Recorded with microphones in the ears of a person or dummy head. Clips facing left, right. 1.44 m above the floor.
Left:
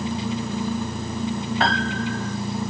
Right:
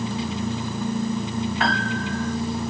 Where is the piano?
30° left (ahead or behind), 2.5 m.